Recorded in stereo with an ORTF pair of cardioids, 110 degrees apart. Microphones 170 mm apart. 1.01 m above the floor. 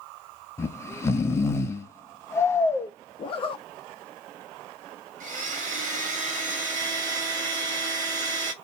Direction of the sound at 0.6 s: 15° left.